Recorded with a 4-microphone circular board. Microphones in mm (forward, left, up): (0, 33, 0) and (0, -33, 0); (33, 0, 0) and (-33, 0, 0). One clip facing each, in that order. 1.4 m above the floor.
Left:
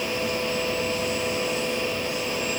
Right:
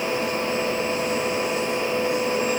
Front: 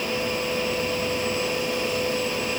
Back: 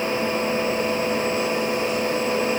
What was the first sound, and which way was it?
Only background noise.